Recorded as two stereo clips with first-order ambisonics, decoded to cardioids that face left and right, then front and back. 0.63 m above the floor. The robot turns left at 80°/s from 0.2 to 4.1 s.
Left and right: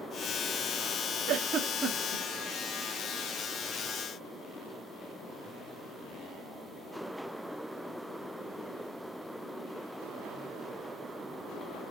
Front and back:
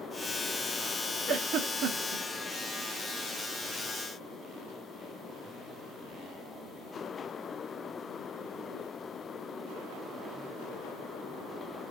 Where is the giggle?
115° right, 1.2 m; by 2.2 s 170° left, 1.2 m.